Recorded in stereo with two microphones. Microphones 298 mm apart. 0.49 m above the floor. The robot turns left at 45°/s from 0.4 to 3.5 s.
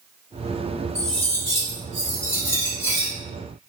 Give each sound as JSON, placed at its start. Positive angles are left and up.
{"t": 0.9, "sound": "cutlery clinking", "azimuth_deg": -175, "distance_m": 1.8}